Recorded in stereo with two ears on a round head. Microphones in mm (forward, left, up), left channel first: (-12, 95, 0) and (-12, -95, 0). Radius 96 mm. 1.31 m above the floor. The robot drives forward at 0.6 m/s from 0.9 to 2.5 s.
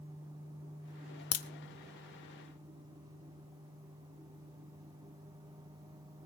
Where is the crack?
85° left, 1.2 m.